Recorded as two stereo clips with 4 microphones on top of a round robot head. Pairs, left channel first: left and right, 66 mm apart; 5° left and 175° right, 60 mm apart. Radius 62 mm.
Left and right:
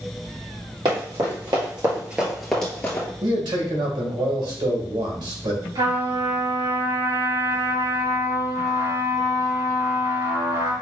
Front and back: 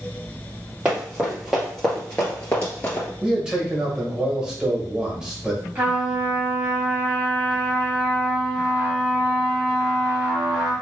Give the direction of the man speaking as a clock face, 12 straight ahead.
3 o'clock.